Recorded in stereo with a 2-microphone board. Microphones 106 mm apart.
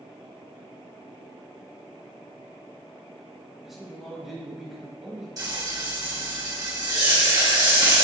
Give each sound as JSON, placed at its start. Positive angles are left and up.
{"t": 3.6, "sound": "a man speaking", "side_deg": -5, "distance_m": 1.2}
{"t": 5.4, "sound": "frying", "side_deg": -40, "distance_m": 1.7}